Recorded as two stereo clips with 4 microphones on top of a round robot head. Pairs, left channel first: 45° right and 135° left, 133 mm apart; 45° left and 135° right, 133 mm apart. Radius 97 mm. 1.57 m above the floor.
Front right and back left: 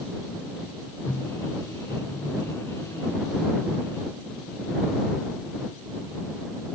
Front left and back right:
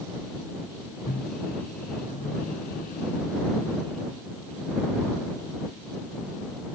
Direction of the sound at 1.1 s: 25° left.